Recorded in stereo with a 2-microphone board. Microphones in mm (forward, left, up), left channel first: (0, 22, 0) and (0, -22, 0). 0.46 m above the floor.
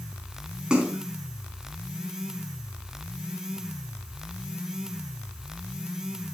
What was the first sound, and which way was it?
A splash, 20° right (ahead or behind).